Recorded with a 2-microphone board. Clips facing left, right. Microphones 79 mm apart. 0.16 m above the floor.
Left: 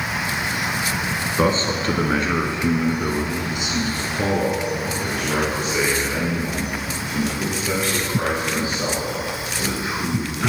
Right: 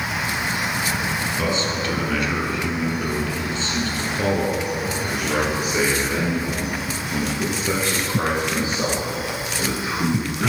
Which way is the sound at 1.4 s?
45° left (ahead or behind).